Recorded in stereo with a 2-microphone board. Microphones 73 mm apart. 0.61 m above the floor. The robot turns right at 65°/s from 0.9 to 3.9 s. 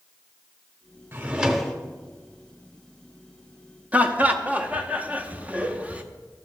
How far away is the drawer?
About 0.7 m.